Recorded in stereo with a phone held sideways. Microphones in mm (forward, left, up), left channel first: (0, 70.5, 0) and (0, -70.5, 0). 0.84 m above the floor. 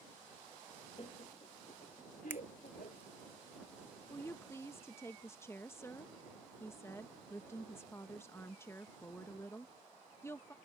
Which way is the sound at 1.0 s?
40° left (ahead or behind).